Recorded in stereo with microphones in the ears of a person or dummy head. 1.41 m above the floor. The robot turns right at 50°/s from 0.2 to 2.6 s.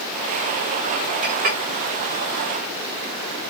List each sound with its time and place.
1.2 s a clink: 30° right (ahead or behind), 0.6 m; by 1.6 s 35° right (ahead or behind), 0.6 m